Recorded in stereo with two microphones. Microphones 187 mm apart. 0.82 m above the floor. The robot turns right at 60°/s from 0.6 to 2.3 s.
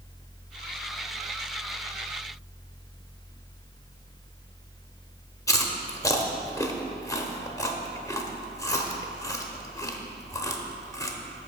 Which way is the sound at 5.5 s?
20° left (ahead or behind).